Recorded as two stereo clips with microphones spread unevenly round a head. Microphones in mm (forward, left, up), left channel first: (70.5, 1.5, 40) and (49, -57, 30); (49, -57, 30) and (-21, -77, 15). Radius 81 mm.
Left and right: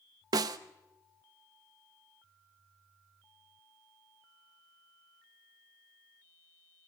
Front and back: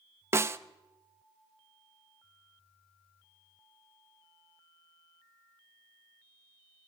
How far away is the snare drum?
About 1.1 m.